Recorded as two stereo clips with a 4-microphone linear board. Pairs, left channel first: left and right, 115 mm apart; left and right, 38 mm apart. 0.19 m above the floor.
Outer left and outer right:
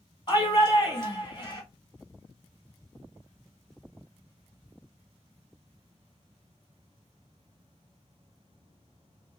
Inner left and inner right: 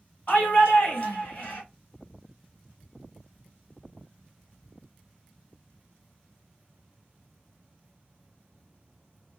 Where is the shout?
40° left (ahead or behind), 2.0 m.